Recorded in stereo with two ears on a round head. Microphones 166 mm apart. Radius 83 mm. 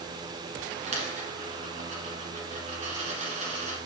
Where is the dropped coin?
35° right (ahead or behind), 2 m.